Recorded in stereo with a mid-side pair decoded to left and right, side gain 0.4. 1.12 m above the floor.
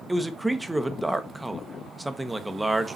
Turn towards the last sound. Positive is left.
turn(degrees=-10)